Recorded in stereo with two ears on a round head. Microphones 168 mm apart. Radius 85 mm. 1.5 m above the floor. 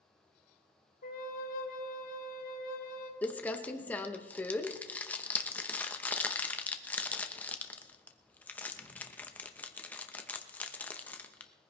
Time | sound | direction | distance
1.0 | a flute | 50° left (ahead or behind) | 1.5 m
3.2 | crumpling | 10° left (ahead or behind) | 0.8 m